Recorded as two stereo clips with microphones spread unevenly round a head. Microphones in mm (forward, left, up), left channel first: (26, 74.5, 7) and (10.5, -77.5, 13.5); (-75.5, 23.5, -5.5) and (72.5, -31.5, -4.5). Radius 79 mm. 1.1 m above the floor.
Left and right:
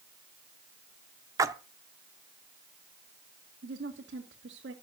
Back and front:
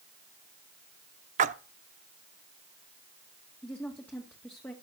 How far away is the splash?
About 0.8 m.